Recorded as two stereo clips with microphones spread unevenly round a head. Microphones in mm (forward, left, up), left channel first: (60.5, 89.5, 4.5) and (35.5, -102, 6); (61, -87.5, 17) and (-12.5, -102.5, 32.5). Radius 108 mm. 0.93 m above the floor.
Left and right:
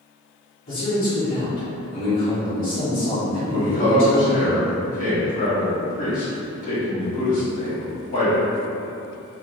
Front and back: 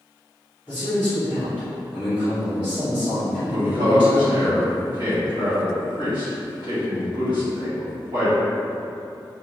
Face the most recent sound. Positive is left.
turn(degrees=140)